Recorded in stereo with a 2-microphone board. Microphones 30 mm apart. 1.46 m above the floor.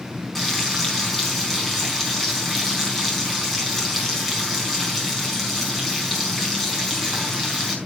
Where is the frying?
10° left (ahead or behind), 4 m.